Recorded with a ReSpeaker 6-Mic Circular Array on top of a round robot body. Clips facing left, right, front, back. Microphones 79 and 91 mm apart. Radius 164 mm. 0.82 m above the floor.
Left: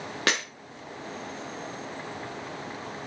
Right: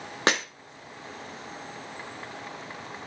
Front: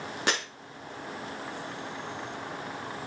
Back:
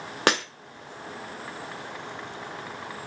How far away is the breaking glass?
About 0.9 m.